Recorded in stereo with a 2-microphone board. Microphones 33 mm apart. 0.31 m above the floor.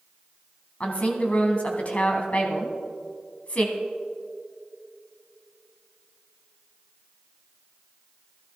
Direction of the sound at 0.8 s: 45° left (ahead or behind).